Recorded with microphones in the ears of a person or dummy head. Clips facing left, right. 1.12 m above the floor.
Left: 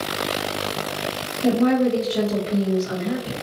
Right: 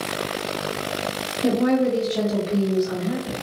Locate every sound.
1.4 s a woman speaking: 10° right (ahead or behind), 1.1 m; by 3.3 s 55° left (ahead or behind), 1.2 m